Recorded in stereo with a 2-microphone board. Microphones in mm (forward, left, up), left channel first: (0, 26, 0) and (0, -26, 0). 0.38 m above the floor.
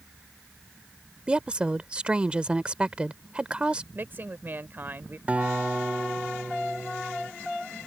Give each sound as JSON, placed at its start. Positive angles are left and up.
{"t": 1.3, "sound": "a woman speaking", "side_deg": -20}
{"t": 4.0, "sound": "a woman speaking", "side_deg": -40}
{"t": 5.3, "sound": "a guitar", "side_deg": -25}